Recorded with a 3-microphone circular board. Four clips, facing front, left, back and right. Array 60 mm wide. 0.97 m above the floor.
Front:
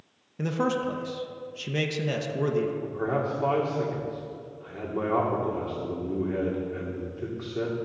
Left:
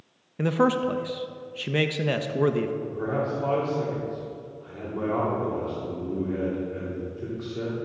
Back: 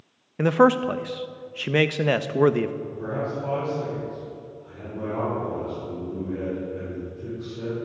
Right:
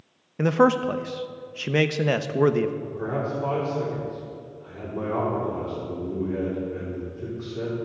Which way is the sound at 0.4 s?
150° right.